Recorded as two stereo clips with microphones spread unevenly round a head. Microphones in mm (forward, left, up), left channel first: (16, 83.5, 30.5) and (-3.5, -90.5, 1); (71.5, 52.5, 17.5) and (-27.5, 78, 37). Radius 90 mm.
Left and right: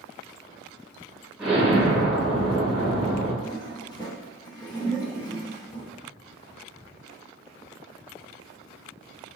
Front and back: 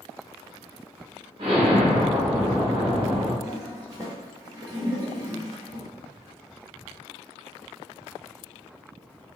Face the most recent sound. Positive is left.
turn(degrees=135)